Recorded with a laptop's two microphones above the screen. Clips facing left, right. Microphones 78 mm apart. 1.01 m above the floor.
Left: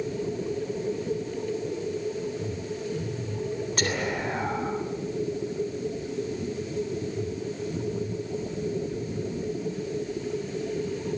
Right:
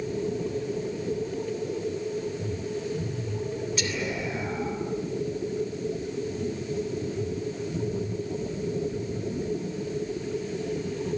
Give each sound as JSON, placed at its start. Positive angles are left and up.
{"t": 3.8, "sound": "whispering", "side_deg": 50, "distance_m": 3.0}